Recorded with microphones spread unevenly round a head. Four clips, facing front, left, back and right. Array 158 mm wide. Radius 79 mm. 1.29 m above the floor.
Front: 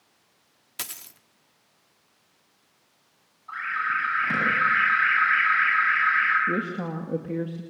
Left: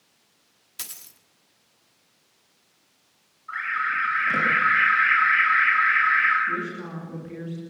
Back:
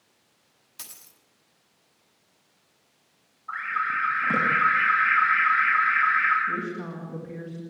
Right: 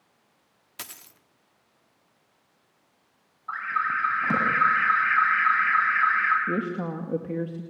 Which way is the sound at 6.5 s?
50° right.